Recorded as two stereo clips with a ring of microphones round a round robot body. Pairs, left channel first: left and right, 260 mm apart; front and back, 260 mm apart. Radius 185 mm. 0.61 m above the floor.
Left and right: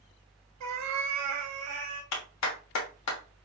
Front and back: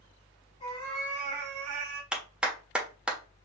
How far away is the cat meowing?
About 0.8 m.